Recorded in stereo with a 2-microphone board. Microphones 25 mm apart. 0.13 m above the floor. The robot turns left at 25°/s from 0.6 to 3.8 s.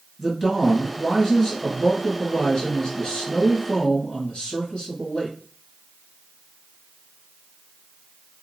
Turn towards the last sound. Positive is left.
turn(degrees=85)